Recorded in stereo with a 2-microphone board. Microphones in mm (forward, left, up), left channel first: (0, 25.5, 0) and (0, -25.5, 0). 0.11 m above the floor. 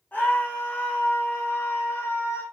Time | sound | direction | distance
0.1 | a scream | 30° left (ahead or behind) | 6 m